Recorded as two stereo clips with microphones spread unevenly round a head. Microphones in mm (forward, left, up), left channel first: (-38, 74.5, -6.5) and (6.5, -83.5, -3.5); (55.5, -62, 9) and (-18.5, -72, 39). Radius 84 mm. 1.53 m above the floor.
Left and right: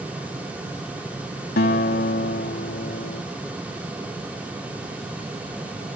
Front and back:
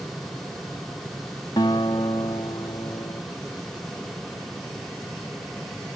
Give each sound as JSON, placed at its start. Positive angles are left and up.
{"t": 1.6, "sound": "a guitar", "azimuth_deg": 70}